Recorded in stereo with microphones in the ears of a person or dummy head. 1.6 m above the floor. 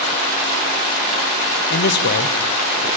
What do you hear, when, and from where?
1.7 s a man speaking: 55° left (ahead or behind), 0.8 m